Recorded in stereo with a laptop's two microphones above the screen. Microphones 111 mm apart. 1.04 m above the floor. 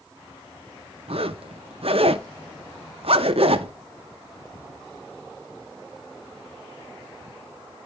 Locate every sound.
1.1 s a zipper: 65° right (ahead or behind), 0.7 m